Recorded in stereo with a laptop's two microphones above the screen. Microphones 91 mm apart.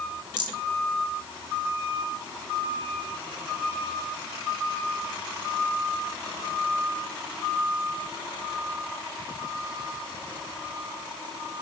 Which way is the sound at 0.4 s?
50° right (ahead or behind).